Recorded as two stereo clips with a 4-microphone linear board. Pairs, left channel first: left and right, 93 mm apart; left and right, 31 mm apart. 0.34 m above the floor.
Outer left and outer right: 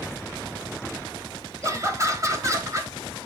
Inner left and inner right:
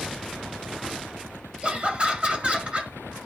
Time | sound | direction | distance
1.6 | laughter | 35° right (ahead or behind) | 1.9 m